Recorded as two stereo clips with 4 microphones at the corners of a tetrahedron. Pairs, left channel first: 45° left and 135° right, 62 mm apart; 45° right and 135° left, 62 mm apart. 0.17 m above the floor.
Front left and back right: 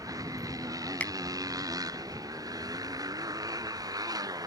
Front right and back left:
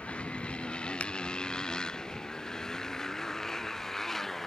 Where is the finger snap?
Straight ahead.